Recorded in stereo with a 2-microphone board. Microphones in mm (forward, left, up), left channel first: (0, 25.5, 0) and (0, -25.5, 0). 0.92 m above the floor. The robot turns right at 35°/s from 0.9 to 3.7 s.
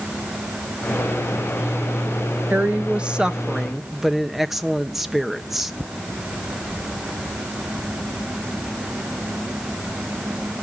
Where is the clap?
No clap in this recording.